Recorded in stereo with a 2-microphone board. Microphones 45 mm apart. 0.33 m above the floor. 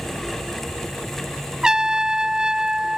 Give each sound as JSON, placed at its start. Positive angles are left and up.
{"t": 1.6, "sound": "a trumpet", "side_deg": -15}